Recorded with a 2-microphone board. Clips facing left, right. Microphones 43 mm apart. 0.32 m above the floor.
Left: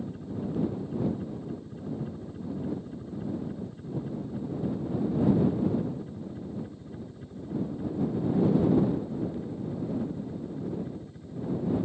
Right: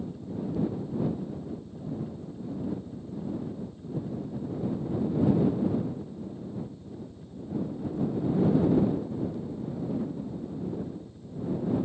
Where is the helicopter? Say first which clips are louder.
Even; 35° left (ahead or behind).